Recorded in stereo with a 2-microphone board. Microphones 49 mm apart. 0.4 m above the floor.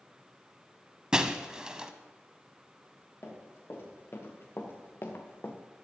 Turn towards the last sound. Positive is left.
turn(degrees=50)  # may be behind; listen again after turning